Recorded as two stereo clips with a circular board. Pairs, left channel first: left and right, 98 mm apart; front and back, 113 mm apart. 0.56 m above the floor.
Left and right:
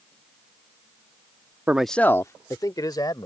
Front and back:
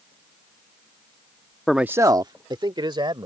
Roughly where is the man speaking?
Right.